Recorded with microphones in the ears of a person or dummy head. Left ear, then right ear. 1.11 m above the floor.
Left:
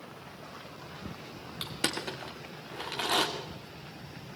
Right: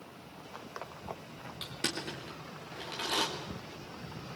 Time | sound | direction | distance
1.6 | crushing | 30° left (ahead or behind) | 2.5 m